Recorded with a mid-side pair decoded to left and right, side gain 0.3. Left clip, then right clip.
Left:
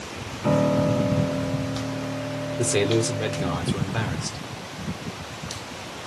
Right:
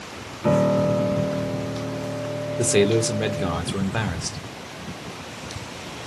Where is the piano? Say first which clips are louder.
Right 2 dB; 25° right, 1.6 m.